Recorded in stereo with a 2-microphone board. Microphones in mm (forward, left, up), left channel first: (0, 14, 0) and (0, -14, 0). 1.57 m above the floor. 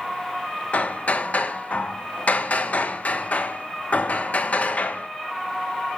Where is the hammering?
55° left (ahead or behind), 1.1 m.